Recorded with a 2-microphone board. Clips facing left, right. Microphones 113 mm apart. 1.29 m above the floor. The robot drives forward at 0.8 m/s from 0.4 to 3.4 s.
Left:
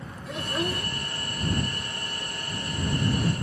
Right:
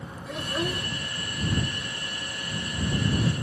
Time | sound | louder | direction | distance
0.3 | a child speaking | even | centre (ahead or behind) | ?